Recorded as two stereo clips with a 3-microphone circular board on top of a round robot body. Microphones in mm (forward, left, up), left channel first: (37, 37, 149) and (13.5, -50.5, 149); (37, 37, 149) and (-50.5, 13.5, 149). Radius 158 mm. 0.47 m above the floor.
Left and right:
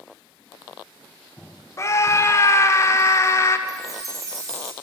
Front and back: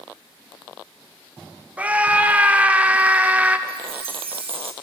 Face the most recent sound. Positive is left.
turn(degrees=-160)